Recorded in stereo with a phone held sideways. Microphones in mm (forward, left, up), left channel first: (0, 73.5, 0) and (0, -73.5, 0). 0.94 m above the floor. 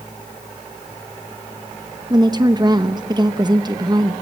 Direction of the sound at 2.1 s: 30° right (ahead or behind).